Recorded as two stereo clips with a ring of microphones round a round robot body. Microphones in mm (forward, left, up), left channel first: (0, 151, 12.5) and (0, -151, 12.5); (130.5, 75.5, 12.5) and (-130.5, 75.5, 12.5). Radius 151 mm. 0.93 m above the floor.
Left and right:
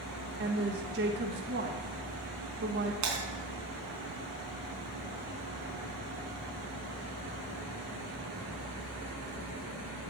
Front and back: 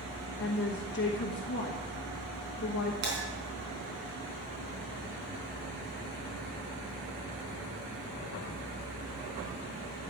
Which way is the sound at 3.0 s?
125° right.